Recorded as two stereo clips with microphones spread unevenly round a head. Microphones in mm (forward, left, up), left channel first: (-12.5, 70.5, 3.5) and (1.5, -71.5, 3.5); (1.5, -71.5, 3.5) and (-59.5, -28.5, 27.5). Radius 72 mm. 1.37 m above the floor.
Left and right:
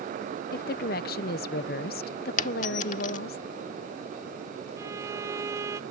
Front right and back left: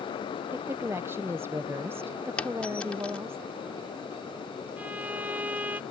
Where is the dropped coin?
60° left.